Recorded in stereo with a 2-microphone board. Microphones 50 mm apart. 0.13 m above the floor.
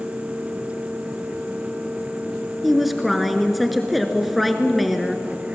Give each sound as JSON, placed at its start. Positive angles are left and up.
{"t": 2.6, "sound": "a woman speaking", "side_deg": 0, "distance_m": 1.5}